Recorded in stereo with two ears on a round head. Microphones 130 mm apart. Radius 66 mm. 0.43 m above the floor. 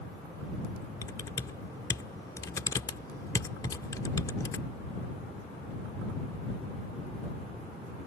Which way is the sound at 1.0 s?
25° left (ahead or behind).